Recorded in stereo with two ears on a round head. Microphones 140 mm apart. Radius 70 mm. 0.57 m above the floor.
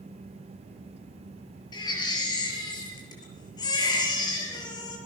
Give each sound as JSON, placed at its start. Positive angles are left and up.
{"t": 1.7, "sound": "a baby crying", "side_deg": 30, "distance_m": 5.5}